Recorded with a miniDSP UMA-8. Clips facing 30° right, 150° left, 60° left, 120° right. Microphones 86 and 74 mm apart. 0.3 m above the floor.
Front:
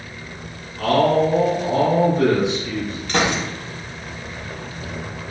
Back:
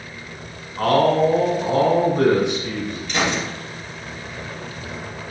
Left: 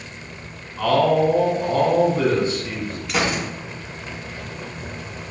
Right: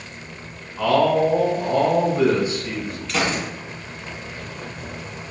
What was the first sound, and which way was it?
A man speaking, 165° left.